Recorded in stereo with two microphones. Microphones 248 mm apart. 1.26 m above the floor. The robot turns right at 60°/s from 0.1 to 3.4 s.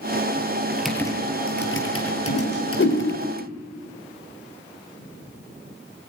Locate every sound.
0.7 s typing on a keyboard: 10° right (ahead or behind), 4 m; by 3.3 s 30° left (ahead or behind), 4 m
2.3 s a whoosh: 80° left, 3 m; by 3.0 s 40° left (ahead or behind), 3 m